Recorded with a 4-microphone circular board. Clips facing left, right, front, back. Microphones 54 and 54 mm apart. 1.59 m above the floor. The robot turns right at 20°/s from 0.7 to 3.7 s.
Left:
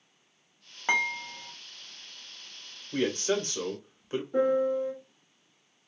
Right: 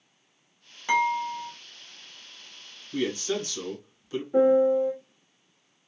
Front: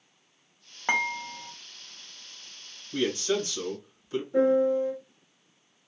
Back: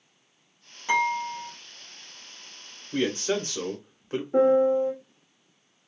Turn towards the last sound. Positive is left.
turn(degrees=-165)